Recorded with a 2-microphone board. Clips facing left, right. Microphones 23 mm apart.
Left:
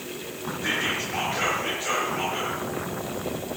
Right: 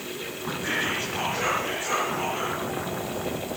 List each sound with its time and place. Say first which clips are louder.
0.6 s whispering: left 1 dB; 30° left (ahead or behind), 6 m